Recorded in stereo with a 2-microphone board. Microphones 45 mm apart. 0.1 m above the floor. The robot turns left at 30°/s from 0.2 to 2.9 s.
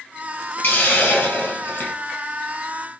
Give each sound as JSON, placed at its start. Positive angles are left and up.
{"t": 0.6, "sound": "a hiss", "azimuth_deg": 105, "distance_m": 1.5}